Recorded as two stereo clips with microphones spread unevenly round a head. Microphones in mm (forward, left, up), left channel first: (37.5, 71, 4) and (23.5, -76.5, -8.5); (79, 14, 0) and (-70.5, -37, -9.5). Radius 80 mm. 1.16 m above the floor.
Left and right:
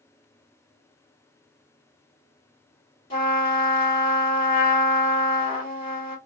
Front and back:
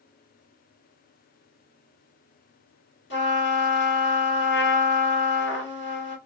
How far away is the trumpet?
About 1.7 m.